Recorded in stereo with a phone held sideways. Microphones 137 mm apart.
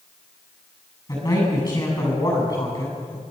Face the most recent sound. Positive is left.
turn(degrees=30)  # may be behind; listen again after turning